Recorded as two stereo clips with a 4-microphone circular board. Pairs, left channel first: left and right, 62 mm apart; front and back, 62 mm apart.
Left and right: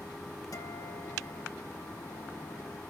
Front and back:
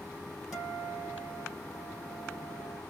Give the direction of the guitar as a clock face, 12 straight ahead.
9 o'clock.